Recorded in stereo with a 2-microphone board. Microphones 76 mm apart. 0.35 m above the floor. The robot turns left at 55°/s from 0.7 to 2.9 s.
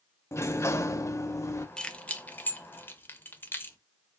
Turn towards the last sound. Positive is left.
turn(degrees=25)  # may be behind; listen again after turning